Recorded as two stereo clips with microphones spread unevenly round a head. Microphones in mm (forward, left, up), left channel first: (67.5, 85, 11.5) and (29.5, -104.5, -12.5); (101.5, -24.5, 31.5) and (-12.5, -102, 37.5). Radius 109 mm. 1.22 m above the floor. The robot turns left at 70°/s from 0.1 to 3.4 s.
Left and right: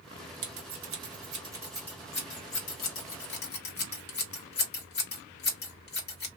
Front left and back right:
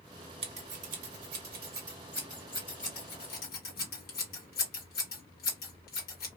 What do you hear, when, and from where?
0.4 s scissors: 100° right, 1.3 m; by 6.3 s 50° left, 1.3 m